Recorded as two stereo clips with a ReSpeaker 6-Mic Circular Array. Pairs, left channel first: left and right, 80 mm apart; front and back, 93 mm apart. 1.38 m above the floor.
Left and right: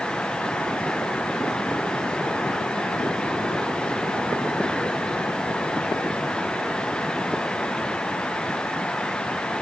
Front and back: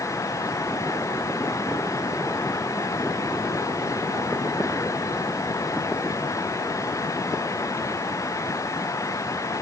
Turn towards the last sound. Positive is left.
No sound to turn to.